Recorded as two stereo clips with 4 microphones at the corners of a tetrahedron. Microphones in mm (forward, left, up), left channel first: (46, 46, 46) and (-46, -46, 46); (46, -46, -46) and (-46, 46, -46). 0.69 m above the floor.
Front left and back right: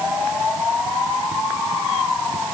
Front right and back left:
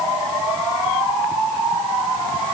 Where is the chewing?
No chewing in this recording.